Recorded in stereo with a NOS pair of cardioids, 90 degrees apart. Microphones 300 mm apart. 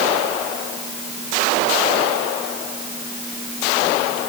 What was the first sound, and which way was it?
Only background noise.